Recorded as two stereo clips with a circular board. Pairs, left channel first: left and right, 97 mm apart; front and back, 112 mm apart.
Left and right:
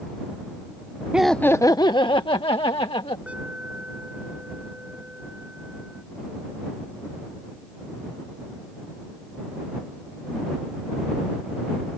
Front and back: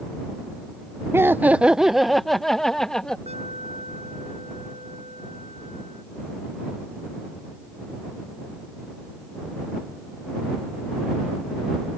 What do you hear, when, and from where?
1.1 s laughter: 155° right; by 3.2 s 85° left
3.3 s an alarm: 165° right